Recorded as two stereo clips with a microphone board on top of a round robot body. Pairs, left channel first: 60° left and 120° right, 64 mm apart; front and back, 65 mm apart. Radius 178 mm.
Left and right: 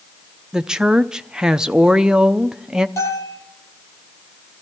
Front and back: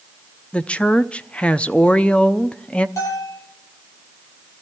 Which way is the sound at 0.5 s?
50° right.